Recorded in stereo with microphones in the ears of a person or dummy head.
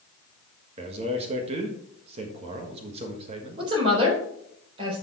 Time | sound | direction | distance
0.8 | a man speaking | 35° right (ahead or behind) | 1.6 m
3.6 | a woman speaking | 30° right (ahead or behind) | 4 m